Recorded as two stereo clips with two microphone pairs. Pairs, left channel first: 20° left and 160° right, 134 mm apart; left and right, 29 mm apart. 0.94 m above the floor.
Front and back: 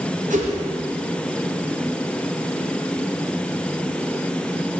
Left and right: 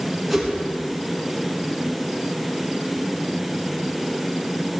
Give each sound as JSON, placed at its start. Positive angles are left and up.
{"t": 0.3, "sound": "a whoosh", "azimuth_deg": -175, "distance_m": 3.0}